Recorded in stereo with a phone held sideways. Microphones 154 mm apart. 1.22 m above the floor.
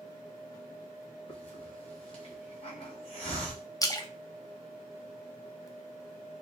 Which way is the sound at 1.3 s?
40° left (ahead or behind).